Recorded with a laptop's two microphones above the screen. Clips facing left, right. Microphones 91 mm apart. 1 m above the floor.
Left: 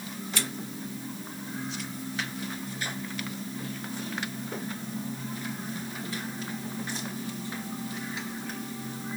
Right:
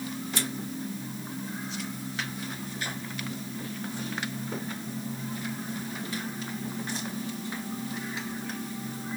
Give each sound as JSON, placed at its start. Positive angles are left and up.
{"t": 0.3, "sound": "scissors", "side_deg": 70, "distance_m": 2.0}